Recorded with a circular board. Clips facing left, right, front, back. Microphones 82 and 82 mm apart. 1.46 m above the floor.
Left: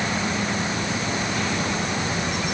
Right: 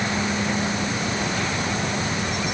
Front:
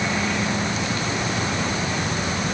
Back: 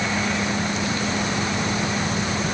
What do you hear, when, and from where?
Only background noise.